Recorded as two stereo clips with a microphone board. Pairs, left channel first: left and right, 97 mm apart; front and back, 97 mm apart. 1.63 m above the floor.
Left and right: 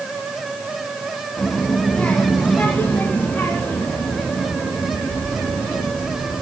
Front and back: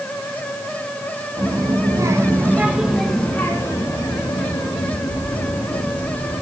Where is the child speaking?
170° left, 1.3 m; by 6.4 s 10° left, 2 m.